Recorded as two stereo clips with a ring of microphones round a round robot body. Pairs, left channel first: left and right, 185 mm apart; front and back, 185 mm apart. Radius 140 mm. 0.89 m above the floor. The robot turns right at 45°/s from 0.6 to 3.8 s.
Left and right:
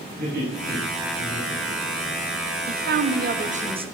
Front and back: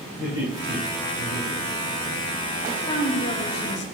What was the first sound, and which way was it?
Laughter, 55° right.